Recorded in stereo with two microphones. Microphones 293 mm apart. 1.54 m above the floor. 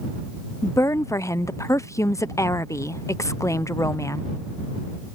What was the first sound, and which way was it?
A woman speaking, 10° left (ahead or behind).